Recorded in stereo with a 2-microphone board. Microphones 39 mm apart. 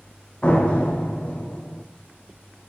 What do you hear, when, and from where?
0.4 s a door slam: 30° left (ahead or behind), 5 m